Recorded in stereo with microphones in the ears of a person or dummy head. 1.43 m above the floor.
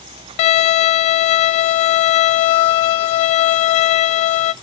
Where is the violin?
35° left (ahead or behind), 0.8 m.